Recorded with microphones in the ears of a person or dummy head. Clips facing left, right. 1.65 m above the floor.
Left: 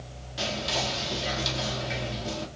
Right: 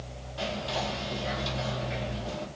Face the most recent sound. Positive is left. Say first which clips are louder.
# left 1 dB
turn(degrees=25)  # may be behind; listen again after turning